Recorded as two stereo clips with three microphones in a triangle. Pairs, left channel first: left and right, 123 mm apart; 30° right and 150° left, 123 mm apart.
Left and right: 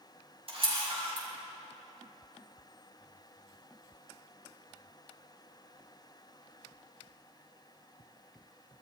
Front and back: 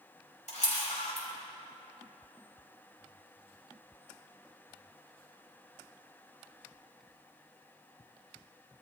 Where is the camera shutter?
50° right, 4.5 m.